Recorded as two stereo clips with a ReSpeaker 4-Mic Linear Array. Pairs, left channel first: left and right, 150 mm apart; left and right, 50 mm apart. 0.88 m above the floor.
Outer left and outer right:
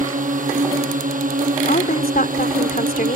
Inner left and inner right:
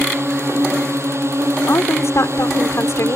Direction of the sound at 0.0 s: 60° right (ahead or behind).